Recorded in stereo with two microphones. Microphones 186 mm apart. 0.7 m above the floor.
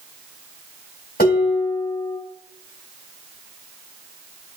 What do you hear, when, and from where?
1.2 s dishes clattering: 65° left (ahead or behind), 2.5 m